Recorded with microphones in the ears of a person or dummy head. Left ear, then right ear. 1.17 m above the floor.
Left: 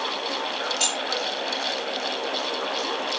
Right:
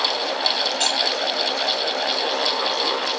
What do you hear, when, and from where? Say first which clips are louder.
0.8 s keys jangling: right 3 dB; 10° right (ahead or behind), 4.5 m